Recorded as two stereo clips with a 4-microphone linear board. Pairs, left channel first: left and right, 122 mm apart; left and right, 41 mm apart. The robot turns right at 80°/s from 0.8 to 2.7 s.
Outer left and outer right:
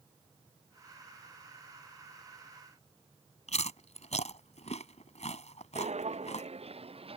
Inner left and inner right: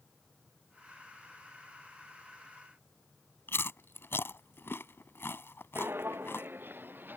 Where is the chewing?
65° left (ahead or behind).